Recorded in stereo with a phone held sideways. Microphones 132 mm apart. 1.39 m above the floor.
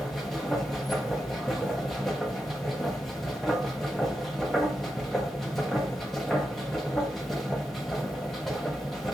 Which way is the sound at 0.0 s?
Centre (ahead or behind).